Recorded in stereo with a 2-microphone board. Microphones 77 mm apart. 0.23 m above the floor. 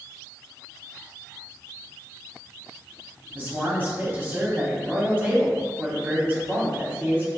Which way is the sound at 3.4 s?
30° right (ahead or behind).